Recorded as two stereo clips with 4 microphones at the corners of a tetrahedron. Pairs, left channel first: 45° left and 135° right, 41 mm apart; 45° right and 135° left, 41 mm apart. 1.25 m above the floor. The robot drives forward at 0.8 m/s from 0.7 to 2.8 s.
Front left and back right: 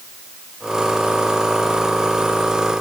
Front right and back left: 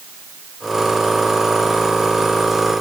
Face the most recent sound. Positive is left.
No sound to turn to.